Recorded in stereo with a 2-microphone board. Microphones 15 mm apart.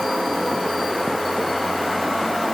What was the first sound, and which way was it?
Only background noise.